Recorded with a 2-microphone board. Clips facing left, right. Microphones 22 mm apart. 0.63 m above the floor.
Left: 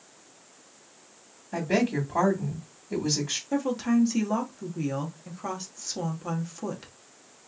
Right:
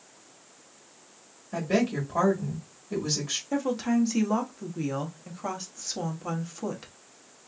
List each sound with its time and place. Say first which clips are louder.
1.5 s a woman speaking: left 1 dB; centre (ahead or behind), 1.5 m
3.5 s a woman speaking: left 1 dB; 5° right (ahead or behind), 0.9 m